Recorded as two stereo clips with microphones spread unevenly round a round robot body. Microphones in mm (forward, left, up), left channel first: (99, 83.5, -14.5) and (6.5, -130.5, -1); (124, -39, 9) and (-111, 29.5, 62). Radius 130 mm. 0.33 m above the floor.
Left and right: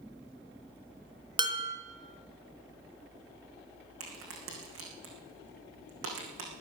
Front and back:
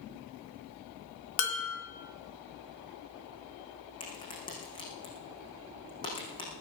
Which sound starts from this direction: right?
A crack, at 4.0 s.